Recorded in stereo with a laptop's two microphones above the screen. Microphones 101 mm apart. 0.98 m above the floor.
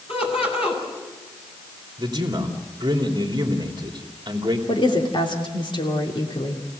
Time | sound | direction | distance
0.1 | laughter | 65° left (ahead or behind) | 8.5 m
2.0 | a man speaking | 45° right (ahead or behind) | 3 m
4.7 | a woman speaking | 55° left (ahead or behind) | 3 m